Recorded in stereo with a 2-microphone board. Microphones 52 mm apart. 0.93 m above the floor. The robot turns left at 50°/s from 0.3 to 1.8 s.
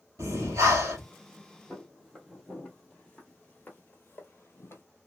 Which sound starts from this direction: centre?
Footsteps, at 1.7 s.